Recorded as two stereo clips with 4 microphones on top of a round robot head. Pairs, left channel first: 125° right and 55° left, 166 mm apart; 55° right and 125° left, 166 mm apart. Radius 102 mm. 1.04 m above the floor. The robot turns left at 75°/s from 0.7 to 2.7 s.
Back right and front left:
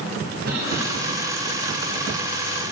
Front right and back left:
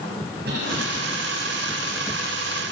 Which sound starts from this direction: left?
A cough, at 0.5 s.